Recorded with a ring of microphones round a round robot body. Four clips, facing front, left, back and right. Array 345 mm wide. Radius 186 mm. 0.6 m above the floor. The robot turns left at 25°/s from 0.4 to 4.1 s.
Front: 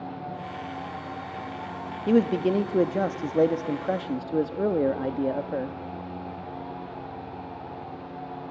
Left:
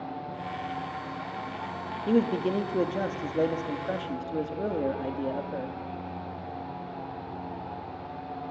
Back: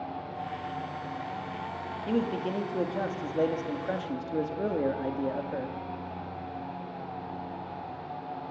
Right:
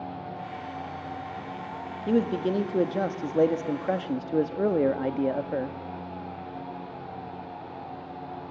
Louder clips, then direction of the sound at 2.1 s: Even, front 8 dB; straight ahead.